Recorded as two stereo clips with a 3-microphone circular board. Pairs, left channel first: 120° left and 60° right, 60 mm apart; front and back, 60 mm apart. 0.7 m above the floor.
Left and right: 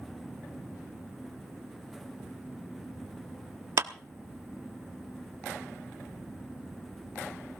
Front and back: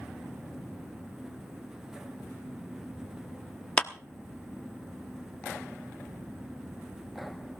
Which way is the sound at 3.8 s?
70° right.